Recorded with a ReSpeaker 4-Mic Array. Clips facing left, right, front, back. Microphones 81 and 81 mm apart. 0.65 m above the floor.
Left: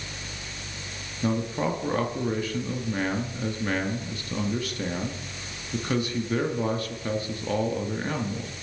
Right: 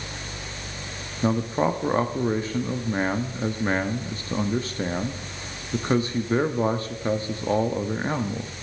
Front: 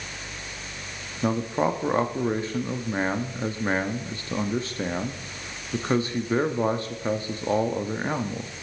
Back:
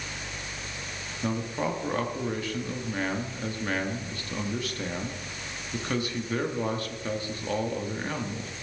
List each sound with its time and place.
1.2 s a man speaking: 45° right, 0.7 m